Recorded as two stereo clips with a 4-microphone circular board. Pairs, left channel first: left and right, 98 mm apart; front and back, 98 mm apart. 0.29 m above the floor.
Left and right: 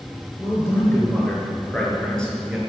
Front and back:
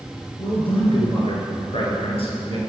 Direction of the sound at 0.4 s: 30° left.